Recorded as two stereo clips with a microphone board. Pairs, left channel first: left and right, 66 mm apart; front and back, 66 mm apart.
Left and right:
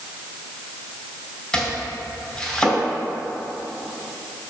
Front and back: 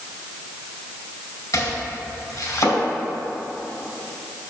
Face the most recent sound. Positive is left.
turn(degrees=15)